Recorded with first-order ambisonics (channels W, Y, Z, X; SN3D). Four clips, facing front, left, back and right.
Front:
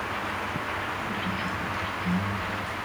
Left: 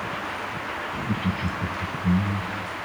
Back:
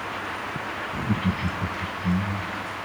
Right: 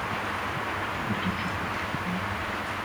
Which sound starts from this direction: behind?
Laughter, at 0.9 s.